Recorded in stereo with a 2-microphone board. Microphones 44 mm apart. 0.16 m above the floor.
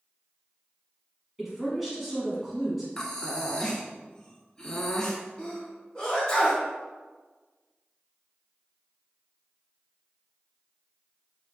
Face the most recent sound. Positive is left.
turn(degrees=25)  # may be behind; listen again after turning